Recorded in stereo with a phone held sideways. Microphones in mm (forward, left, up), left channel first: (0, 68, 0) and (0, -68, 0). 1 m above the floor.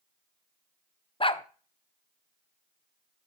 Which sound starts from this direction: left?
A dog barking, at 1.2 s.